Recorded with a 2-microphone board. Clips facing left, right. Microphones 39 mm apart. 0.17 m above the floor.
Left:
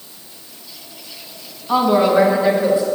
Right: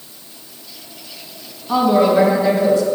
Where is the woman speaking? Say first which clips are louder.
Even; 20° left (ahead or behind), 1.1 m; by 2.9 s 30° left (ahead or behind), 2.5 m.